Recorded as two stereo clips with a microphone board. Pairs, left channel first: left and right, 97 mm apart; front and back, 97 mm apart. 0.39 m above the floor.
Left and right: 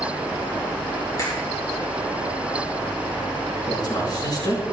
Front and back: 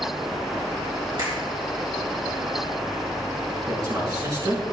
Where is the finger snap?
145° left, 5 m.